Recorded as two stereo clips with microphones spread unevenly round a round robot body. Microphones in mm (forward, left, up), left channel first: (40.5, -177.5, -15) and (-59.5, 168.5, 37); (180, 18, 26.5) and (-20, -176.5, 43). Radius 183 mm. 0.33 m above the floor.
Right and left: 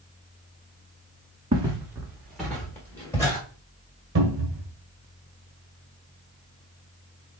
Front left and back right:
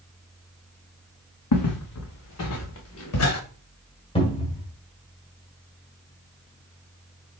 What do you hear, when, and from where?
1.5 s footsteps: 30° left, 1.3 m; by 3.4 s 10° left, 2.5 m
4.2 s a cupboard door: 85° left, 1.3 m